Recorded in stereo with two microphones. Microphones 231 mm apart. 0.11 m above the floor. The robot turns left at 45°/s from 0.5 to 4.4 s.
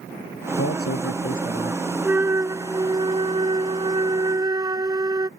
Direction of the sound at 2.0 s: 10° right (ahead or behind).